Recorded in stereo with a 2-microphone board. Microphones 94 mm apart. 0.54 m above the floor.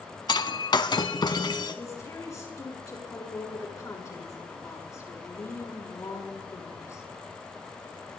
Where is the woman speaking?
35° left (ahead or behind), 5.5 m.